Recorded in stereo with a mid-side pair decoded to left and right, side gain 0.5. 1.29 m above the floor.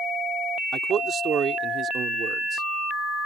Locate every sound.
0.7 s a man speaking: 50° right